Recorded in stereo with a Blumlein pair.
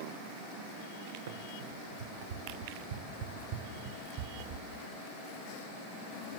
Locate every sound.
1.3 s running footsteps: 55° right, 6.5 m; by 4.7 s 35° right, 4 m